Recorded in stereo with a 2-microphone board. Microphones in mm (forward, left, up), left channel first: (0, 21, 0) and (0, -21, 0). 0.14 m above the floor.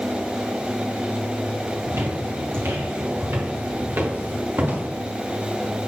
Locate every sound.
1.9 s footsteps: 80° right, 3.5 m; by 4.9 s 40° right (ahead or behind), 2.5 m